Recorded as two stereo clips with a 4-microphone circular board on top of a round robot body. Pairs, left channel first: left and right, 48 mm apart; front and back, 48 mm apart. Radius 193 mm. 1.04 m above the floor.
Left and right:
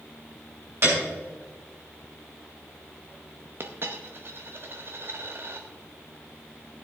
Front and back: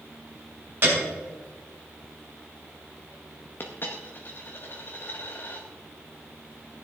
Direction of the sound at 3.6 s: 50° right.